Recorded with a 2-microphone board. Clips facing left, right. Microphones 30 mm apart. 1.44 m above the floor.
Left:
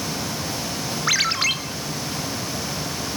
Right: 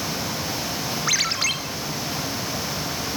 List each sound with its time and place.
1.1 s a ringtone: 15° left (ahead or behind), 3 m